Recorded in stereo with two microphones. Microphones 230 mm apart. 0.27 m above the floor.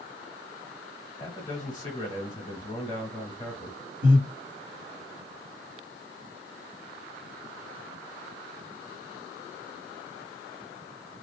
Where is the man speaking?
20° left (ahead or behind), 1.2 m.